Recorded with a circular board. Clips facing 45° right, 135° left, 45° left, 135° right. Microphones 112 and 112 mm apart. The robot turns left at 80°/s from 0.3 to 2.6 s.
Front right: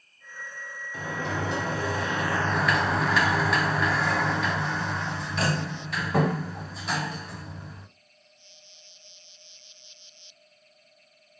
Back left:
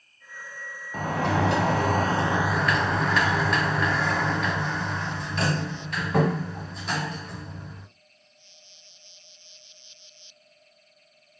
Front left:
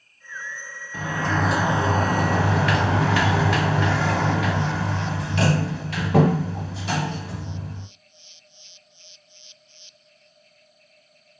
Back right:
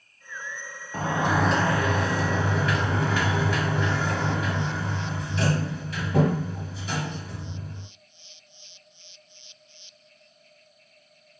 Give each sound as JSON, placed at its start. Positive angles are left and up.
{"t": 0.9, "sound": "a sliding door", "azimuth_deg": 175, "distance_m": 1.0}